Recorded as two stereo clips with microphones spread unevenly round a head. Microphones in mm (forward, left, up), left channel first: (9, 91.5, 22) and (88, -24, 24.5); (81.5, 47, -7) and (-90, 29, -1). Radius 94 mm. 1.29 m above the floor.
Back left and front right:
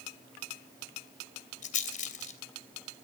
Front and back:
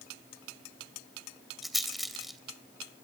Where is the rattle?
95° left, 3 m.